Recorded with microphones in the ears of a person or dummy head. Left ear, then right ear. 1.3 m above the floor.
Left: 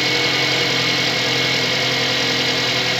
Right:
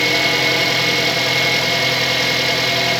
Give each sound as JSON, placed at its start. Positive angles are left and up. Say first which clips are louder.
{"t": 0.0, "sound": "an engine running", "louder": "right 2 dB", "side_deg": -10, "distance_m": 0.9}